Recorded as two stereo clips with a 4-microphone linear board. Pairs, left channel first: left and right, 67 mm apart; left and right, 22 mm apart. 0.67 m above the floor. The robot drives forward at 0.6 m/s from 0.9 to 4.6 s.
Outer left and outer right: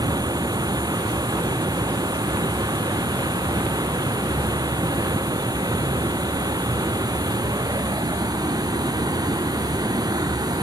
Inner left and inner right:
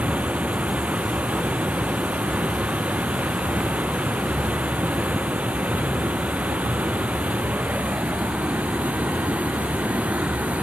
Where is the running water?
80° right; by 10.6 s 75° right (ahead or behind).